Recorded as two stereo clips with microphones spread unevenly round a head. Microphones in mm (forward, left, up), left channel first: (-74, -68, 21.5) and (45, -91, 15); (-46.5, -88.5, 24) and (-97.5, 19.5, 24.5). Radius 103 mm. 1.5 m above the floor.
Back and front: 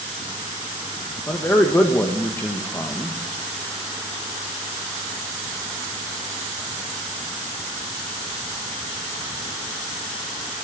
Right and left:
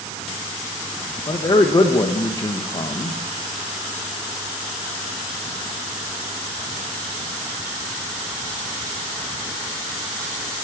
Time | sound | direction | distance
1.3 | a man speaking | 120° right | 1.4 m